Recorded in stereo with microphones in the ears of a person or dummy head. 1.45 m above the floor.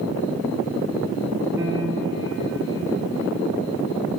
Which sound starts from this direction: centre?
A piano, at 1.6 s.